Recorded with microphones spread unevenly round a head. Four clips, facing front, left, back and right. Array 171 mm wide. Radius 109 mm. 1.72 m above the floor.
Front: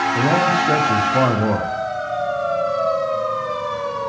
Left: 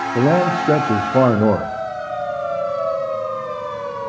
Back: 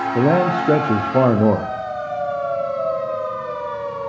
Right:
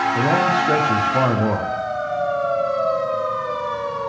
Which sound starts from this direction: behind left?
A man speaking, at 0.1 s.